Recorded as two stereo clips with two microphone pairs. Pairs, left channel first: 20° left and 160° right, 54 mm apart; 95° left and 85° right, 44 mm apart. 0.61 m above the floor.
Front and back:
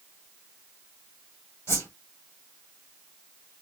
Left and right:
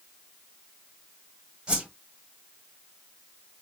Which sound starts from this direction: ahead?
A whoosh, at 1.7 s.